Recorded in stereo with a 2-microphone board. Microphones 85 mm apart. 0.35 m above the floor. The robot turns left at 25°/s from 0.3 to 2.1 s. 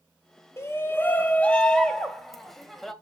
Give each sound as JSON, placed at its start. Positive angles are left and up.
{"t": 0.6, "sound": "a shout", "azimuth_deg": 40, "distance_m": 1.3}